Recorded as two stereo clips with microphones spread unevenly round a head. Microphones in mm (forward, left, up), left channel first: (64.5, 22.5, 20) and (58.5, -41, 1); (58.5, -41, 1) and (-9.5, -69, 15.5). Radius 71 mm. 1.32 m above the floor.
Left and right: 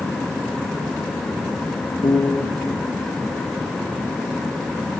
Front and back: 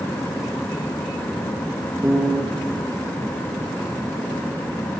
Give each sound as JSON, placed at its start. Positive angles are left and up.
{"t": 2.0, "sound": "a piano", "azimuth_deg": 130, "distance_m": 1.1}